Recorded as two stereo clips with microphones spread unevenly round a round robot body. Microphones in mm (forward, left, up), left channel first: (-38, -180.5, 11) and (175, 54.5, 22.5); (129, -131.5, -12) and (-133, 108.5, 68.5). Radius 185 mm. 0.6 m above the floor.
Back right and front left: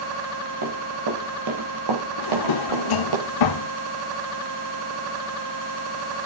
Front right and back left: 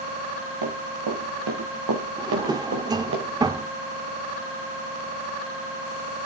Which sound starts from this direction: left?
Running footsteps, at 0.6 s.